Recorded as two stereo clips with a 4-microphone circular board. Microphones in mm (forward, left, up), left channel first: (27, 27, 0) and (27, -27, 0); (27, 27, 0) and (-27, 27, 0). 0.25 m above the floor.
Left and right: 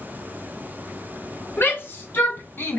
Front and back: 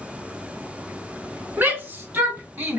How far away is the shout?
About 2.5 m.